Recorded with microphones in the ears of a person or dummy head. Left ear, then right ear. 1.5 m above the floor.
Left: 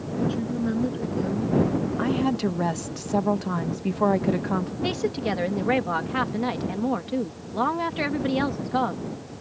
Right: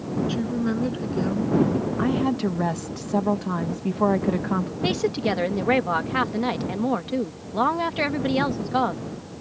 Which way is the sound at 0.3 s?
25° right (ahead or behind).